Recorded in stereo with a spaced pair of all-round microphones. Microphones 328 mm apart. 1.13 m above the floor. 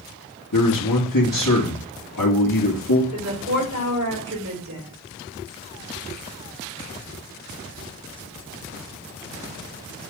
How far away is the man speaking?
About 2.5 m.